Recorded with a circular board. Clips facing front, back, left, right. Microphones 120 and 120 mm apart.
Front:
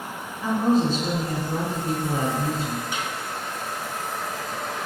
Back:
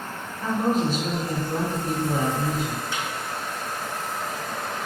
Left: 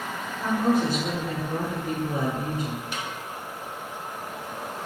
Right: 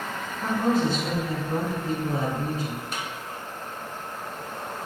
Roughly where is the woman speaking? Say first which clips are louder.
Front 2 dB, even; ahead right.